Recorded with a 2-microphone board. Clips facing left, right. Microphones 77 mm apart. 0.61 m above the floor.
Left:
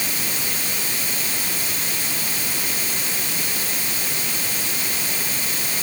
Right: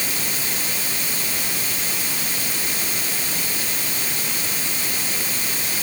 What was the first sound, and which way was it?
Only background noise.